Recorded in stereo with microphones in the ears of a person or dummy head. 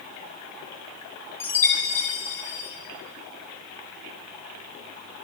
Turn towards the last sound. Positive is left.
turn(degrees=15)  # may be behind; listen again after turning